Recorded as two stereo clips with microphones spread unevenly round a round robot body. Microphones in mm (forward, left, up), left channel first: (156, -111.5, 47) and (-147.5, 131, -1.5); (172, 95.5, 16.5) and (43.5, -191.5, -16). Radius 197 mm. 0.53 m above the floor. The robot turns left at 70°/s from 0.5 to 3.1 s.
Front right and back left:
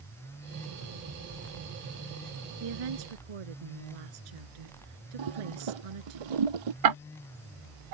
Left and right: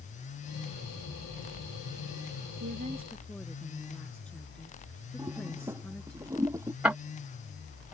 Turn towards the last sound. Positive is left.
turn(degrees=160)